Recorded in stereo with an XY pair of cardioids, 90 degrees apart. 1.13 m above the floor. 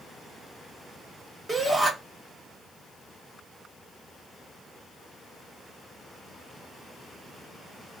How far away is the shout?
About 1.2 m.